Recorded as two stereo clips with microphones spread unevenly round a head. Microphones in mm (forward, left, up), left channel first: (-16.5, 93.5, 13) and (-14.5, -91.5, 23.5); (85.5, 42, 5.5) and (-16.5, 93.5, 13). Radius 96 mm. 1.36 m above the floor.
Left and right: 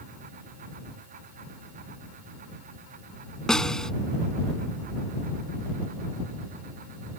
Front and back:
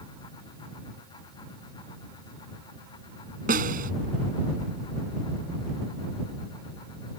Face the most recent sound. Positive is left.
turn(degrees=180)